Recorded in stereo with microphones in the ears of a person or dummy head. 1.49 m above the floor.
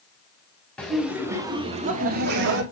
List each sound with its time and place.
0.8 s laughter: 5° left (ahead or behind), 1.7 m; by 2.6 s 65° right (ahead or behind), 1.6 m